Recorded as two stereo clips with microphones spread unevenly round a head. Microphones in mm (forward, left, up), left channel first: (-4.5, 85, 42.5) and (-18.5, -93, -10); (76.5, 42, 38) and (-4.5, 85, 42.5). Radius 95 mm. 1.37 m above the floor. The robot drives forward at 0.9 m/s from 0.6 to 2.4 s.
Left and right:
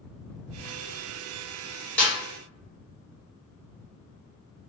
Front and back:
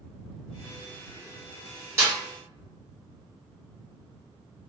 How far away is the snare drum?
About 1.1 m.